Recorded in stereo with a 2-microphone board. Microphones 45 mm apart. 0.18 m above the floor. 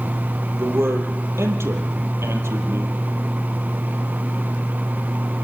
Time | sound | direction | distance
0.6 | a man speaking | 75° right (ahead or behind) | 4.5 m